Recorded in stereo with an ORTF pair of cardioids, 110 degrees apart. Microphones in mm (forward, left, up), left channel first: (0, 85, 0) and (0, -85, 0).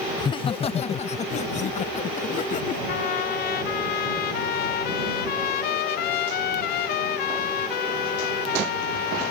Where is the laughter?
25° left; by 2.8 s 50° left.